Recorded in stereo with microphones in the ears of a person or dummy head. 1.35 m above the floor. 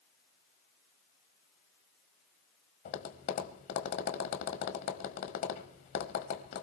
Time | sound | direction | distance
2.9 | tapping | 45° left (ahead or behind) | 1.5 m